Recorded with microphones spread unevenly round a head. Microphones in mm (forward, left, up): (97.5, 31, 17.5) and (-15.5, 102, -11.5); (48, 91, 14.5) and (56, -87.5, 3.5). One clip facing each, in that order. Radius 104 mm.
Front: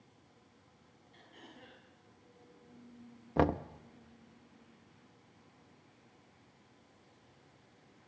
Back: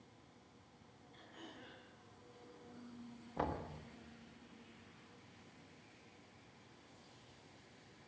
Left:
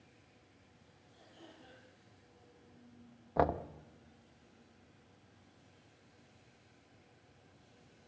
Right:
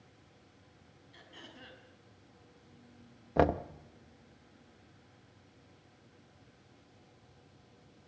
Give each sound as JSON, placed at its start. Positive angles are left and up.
{"t": 1.1, "sound": "throat clearing", "azimuth_deg": -95, "distance_m": 6.0}
{"t": 3.4, "sound": "knocking", "azimuth_deg": -25, "distance_m": 0.7}